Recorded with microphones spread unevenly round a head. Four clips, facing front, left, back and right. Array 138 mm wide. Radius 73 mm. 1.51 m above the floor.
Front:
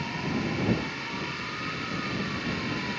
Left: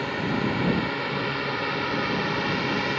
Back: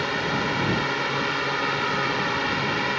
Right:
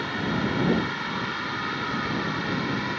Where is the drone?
155° left; by 3.0 s 135° left.